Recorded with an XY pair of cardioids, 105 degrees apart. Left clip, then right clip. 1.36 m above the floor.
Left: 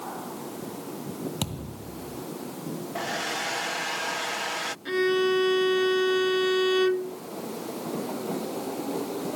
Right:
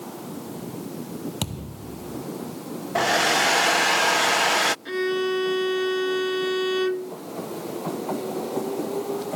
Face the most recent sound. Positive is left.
turn(degrees=10)